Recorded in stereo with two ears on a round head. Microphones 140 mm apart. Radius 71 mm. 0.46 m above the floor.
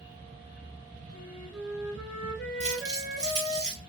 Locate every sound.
1.1 s a flute: 25° right (ahead or behind), 1.9 m
2.6 s crumpling: 25° right (ahead or behind), 1.6 m